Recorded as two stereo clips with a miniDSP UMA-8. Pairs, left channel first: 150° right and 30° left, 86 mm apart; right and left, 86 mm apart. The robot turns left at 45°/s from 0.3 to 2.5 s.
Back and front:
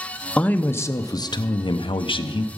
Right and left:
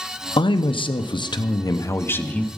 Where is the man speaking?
75° right, 0.6 m; by 2.5 s 170° right, 0.6 m.